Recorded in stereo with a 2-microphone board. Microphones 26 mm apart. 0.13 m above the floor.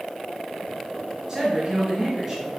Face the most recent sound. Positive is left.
turn(degrees=-25)  # may be behind; listen again after turning